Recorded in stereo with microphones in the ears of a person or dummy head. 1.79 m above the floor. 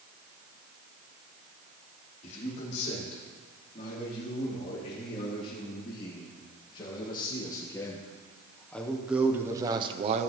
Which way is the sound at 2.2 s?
40° left (ahead or behind).